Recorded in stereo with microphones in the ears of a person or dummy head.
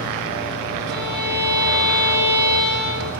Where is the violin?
20° left (ahead or behind), 9 m.